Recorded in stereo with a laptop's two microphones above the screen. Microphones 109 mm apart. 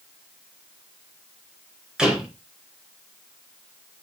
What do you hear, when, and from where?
2.0 s a door slam: 5° right (ahead or behind), 4 m